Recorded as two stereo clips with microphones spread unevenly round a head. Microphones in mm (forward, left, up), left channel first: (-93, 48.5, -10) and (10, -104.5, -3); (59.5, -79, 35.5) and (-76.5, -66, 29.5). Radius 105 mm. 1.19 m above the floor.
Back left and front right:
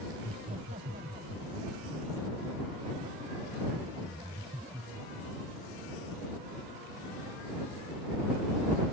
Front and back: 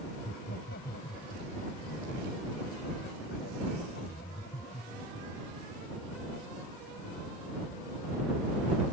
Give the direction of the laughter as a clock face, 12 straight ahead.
12 o'clock.